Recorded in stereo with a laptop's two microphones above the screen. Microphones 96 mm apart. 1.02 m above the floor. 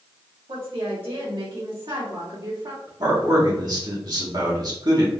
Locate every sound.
0.5 s a woman speaking: 85° right, 1.8 m; by 2.9 s 50° right (ahead or behind), 2.5 m
3.0 s a man speaking: 50° right (ahead or behind), 1.4 m